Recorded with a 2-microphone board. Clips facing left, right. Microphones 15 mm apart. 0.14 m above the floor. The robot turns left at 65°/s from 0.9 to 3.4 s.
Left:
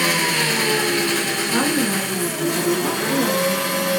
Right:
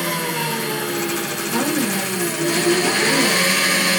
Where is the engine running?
80° left, 1.0 m; by 4.0 s 80° right, 1.0 m.